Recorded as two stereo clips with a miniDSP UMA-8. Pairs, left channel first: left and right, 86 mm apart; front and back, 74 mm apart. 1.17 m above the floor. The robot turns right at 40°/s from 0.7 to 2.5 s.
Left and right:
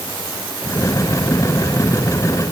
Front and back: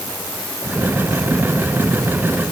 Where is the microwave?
No microwave in this recording.